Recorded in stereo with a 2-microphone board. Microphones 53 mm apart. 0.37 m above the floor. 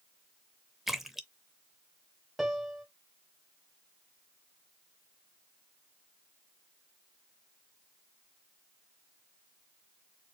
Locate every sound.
0.9 s a splash: 5° right (ahead or behind), 0.6 m
2.4 s a piano: 5° right (ahead or behind), 0.8 m